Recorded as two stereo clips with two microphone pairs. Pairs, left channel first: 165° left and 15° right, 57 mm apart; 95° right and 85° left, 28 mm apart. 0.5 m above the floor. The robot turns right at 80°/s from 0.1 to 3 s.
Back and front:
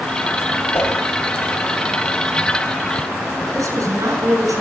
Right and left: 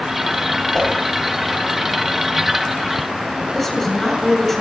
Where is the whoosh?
165° right, 6 m; by 0.9 s 150° right, 6 m.